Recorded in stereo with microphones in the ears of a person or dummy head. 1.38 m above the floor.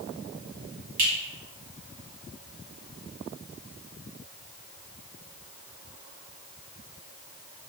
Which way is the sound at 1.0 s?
55° right (ahead or behind).